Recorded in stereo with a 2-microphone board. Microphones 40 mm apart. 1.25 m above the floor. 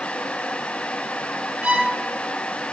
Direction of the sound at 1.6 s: 25° right (ahead or behind).